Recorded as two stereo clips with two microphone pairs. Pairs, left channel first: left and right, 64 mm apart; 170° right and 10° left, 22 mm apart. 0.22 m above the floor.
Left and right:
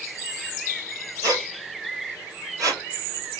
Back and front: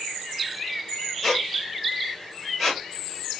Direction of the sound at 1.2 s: 80° right.